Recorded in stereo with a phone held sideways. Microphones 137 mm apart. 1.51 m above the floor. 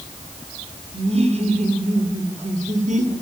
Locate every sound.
0.9 s laughter: 45° right (ahead or behind), 5.5 m; by 3.1 s 65° right (ahead or behind), 5.5 m